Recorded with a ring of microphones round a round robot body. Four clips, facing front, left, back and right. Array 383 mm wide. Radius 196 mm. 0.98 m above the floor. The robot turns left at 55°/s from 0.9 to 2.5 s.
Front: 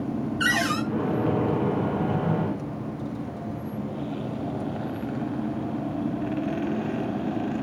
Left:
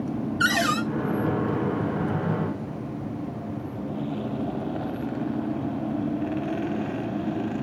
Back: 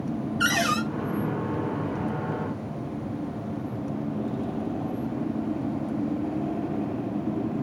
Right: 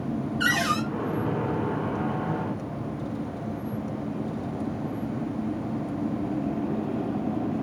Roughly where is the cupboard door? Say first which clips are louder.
Left 2 dB, back 1 dB; behind left.